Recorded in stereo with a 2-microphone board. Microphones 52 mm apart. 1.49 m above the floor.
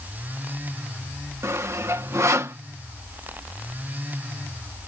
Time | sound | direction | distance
1.4 | sawing | 70° right (ahead or behind) | ?